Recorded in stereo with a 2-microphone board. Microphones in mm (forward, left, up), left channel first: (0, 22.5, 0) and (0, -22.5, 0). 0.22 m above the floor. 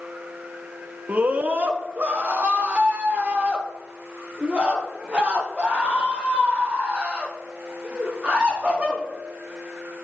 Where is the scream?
40° right (ahead or behind), 1.9 m; by 9.0 s 25° right (ahead or behind), 9 m.